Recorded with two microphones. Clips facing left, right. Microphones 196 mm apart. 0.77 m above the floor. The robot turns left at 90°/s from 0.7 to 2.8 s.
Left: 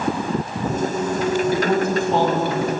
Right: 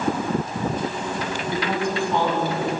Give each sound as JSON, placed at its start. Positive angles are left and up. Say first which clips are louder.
{"t": 1.5, "sound": "a woman speaking", "louder": "left 5 dB", "azimuth_deg": -155, "distance_m": 4.5}